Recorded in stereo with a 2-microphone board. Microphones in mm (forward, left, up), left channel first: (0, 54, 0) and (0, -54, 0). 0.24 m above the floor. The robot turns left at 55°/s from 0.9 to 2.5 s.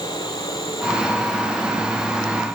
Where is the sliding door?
No sliding door in this recording.